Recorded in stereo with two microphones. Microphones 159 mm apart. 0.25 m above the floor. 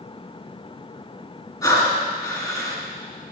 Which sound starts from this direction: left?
Breathing, at 1.6 s.